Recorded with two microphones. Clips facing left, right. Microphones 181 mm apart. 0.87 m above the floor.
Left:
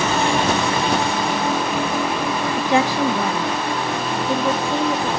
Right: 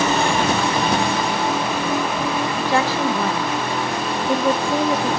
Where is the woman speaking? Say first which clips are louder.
Left 3 dB; 25° left (ahead or behind), 1.0 m; by 5.2 s 15° right (ahead or behind), 1.9 m.